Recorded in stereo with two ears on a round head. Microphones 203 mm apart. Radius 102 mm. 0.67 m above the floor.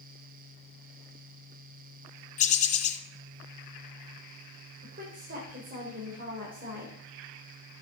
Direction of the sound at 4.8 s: 40° right (ahead or behind).